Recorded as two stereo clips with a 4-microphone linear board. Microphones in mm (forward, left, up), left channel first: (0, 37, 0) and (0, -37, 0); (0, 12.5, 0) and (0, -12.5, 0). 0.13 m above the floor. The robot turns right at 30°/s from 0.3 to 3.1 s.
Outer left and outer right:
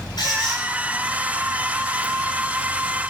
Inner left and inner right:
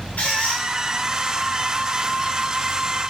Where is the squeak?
60° left (ahead or behind), 6 m; by 0.6 s 70° left (ahead or behind), 6 m.